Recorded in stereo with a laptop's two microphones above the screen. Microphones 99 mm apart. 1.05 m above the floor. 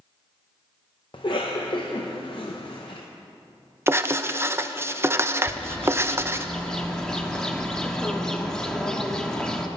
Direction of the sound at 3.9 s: 25° right (ahead or behind).